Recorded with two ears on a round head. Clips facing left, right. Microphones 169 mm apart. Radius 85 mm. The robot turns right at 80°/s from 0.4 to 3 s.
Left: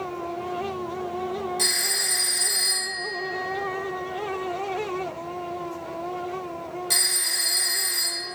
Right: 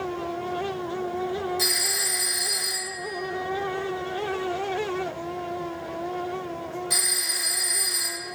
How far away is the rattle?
No rattle in this recording.